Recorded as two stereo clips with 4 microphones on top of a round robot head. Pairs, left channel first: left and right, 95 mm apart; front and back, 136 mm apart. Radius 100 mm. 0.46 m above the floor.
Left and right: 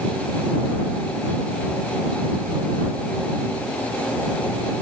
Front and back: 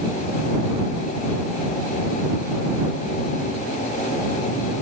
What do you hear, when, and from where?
Only background noise.